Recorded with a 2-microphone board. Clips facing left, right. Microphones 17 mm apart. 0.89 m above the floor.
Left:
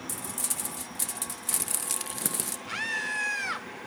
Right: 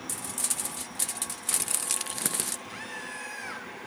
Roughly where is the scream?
Left.